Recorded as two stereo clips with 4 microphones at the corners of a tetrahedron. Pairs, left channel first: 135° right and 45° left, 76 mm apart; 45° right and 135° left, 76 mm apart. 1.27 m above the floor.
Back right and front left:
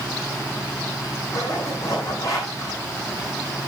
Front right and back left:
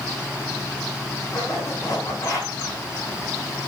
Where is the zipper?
95° right, 5.5 m.